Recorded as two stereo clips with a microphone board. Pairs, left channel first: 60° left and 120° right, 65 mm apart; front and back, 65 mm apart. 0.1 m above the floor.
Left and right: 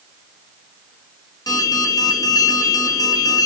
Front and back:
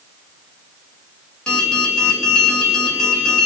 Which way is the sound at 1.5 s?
75° left.